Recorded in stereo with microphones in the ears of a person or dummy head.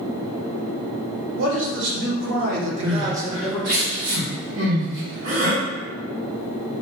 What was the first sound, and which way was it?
A man speaking, 65° right (ahead or behind).